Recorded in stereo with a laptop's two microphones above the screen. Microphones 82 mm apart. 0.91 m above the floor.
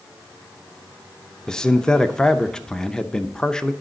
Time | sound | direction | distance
1.5 | a man speaking | 10° left (ahead or behind) | 0.6 m